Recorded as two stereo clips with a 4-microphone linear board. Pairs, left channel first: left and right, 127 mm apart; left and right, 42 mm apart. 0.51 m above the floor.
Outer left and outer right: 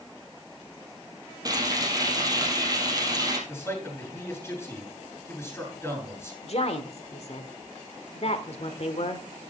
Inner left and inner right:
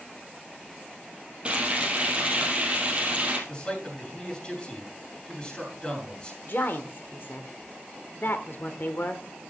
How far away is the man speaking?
About 7 m.